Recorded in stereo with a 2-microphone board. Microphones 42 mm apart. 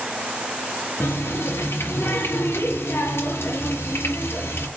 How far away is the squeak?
No squeak in this recording.